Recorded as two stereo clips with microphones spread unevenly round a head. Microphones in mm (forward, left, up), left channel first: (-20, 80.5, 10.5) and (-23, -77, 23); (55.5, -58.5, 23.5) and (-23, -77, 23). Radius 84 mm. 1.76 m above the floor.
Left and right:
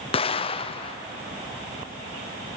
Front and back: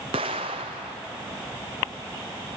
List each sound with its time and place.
0.1 s an explosion: 145° left, 0.7 m